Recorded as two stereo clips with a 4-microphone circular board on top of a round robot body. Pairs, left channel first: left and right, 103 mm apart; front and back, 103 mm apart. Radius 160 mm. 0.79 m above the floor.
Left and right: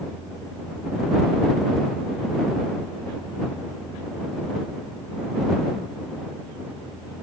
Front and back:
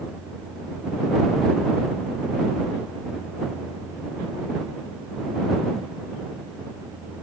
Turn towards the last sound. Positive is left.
No sound to turn to.